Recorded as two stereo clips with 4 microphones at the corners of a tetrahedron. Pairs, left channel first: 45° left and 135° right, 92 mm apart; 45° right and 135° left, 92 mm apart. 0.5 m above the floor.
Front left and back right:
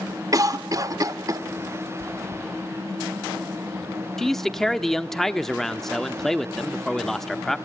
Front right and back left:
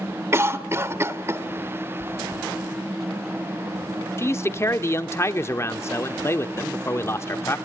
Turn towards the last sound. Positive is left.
turn(degrees=-40)